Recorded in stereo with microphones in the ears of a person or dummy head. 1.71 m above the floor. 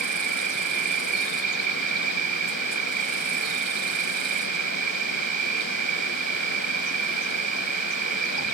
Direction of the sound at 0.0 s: 45° right (ahead or behind).